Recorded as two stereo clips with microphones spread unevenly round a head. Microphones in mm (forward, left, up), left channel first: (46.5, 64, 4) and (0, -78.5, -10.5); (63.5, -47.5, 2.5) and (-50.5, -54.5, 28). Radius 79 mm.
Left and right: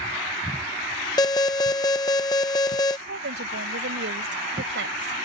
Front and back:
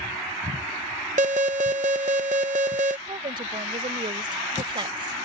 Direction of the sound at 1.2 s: 140° left.